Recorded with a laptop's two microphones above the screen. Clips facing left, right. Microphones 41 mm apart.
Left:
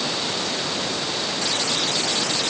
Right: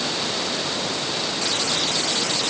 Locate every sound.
Only background noise.